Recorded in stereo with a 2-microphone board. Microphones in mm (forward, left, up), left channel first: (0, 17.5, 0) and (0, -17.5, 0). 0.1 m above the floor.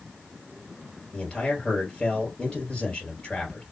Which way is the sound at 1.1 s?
25° left (ahead or behind).